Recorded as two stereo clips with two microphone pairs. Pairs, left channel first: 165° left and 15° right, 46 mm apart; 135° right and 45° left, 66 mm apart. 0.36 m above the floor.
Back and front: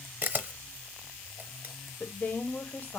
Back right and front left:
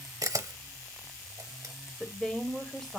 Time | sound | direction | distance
0.2 | a camera shutter | 25° left | 0.7 m
2.0 | a woman speaking | 145° left | 1.2 m